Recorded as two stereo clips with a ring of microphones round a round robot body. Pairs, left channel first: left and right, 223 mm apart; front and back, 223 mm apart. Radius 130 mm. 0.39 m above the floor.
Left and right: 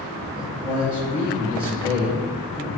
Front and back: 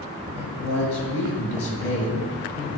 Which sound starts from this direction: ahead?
A man speaking, at 0.3 s.